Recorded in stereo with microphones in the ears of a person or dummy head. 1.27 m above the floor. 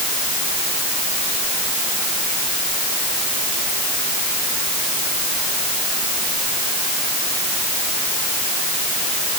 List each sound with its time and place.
Only background noise.